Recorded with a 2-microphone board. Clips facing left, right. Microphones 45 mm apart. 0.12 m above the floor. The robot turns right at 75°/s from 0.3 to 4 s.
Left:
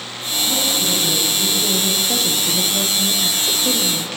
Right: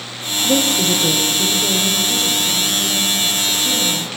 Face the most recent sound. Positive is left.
turn(degrees=170)